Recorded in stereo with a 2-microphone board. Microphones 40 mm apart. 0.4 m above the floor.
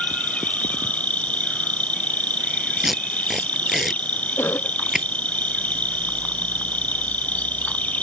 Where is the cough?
85° left.